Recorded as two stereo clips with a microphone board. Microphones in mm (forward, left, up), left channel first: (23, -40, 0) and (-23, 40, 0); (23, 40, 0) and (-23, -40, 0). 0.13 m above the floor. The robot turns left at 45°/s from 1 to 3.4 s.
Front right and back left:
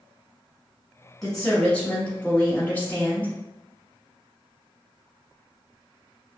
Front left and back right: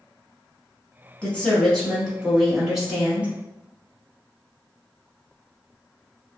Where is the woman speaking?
15° left, 1.2 m; by 3.3 s 80° right, 1.2 m.